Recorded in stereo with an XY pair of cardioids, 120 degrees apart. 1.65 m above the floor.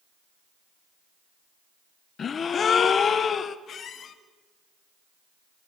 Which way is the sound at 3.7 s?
50° left.